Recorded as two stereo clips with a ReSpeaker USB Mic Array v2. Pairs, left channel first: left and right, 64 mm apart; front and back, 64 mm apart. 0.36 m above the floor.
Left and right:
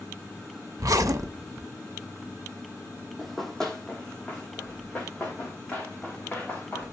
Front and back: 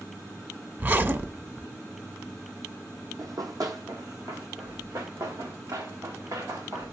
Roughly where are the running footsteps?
Behind.